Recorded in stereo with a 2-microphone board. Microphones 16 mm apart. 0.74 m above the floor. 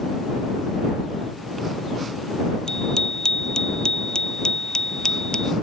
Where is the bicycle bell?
50° left (ahead or behind); by 5.5 s 60° left (ahead or behind).